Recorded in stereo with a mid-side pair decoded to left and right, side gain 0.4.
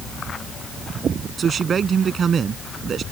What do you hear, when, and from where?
1.4 s a man speaking: 50° right